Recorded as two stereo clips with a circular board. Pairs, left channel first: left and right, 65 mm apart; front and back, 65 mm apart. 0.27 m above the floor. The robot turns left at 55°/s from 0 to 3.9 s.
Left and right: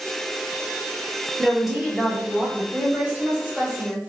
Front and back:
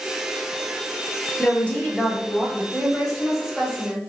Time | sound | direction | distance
1.4 | a woman speaking | 5° left | 1.2 m
2.7 | a woman speaking | 65° right | 1.1 m